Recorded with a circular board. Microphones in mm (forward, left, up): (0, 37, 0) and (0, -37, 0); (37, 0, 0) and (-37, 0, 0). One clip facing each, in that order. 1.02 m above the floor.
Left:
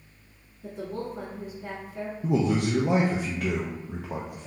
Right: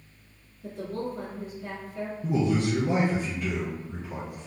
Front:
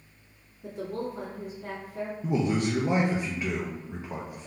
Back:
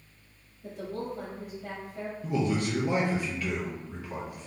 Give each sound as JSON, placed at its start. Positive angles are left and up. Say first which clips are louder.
{"t": 0.6, "sound": "a woman speaking", "louder": "right 1 dB, front 2 dB", "azimuth_deg": 25, "distance_m": 1.9}
{"t": 2.2, "sound": "a man speaking", "louder": "left 1 dB, front 2 dB", "azimuth_deg": 65, "distance_m": 0.5}